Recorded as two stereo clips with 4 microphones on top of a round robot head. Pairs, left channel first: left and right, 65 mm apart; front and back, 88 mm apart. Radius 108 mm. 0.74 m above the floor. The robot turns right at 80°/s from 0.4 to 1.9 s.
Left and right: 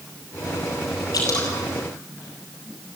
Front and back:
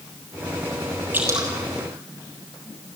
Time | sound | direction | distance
1.1 | dripping | 110° left | 7 m